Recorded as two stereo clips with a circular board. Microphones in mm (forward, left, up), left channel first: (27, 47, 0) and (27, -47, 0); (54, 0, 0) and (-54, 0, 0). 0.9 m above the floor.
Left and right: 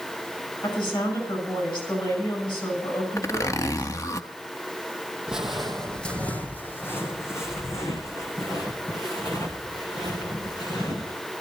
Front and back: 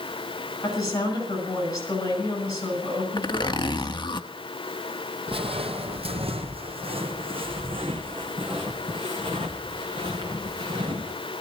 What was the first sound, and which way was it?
A woman speaking, 50° left.